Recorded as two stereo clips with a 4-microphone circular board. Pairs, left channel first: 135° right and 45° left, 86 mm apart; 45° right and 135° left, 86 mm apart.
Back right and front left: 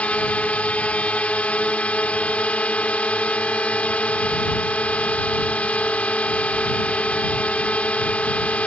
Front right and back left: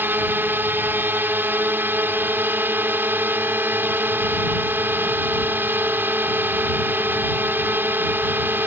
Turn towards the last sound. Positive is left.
turn(degrees=170)